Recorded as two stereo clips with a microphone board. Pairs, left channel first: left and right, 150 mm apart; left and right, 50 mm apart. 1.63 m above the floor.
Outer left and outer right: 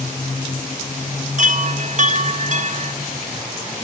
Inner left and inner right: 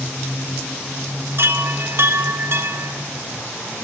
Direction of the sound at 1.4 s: 55° right (ahead or behind).